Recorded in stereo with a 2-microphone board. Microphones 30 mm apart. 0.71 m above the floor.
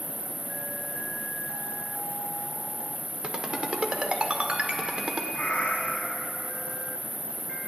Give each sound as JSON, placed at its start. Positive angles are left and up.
{"t": 0.0, "sound": "an insect", "side_deg": 65, "distance_m": 4.0}
{"t": 3.2, "sound": "a ringtone", "side_deg": -35, "distance_m": 1.1}
{"t": 5.3, "sound": "a cat meowing", "side_deg": 50, "distance_m": 1.9}